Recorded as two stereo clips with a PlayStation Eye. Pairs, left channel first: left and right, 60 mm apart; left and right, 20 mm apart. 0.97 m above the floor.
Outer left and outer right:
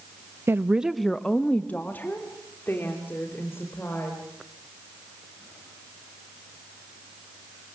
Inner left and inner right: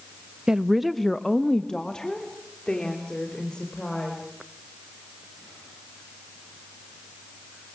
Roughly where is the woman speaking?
Right.